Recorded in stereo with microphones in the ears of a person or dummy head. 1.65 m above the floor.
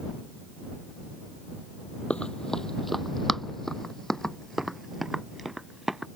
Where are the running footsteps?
15° left (ahead or behind); by 6.0 s 5° left (ahead or behind).